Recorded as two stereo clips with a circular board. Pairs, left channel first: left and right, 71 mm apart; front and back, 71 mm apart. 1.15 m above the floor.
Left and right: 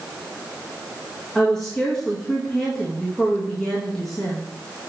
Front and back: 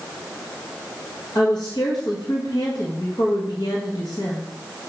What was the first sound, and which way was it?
A woman speaking, 5° left.